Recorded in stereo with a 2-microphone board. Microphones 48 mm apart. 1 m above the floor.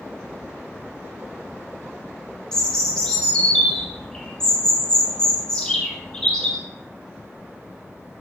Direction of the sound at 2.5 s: 15° left (ahead or behind).